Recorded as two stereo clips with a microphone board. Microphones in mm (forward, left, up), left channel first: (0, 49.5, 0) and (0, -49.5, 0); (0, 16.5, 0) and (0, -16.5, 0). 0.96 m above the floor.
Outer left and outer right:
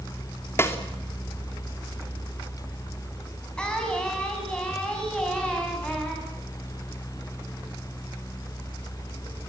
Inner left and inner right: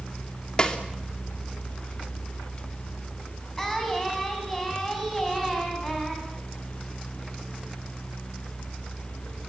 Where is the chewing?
I don't hear chewing.